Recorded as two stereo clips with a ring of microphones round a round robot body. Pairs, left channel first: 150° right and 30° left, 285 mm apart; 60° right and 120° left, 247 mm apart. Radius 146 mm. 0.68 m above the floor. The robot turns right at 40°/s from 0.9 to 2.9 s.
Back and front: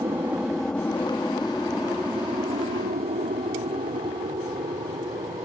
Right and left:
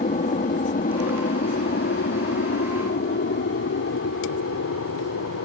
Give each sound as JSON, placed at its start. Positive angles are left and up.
{"t": 0.0, "sound": "an aircraft", "azimuth_deg": -40}